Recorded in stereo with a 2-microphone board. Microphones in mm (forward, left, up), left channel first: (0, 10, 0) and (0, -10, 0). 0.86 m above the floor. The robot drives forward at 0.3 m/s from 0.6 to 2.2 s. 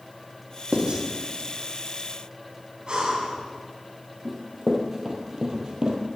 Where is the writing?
45° right (ahead or behind), 1.4 m.